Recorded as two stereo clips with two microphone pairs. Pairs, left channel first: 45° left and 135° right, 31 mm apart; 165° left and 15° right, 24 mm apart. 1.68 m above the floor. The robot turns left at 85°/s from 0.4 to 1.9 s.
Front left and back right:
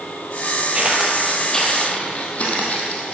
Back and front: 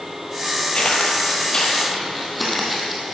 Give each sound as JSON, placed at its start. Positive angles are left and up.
{"t": 0.7, "sound": "footsteps", "azimuth_deg": -170, "distance_m": 2.0}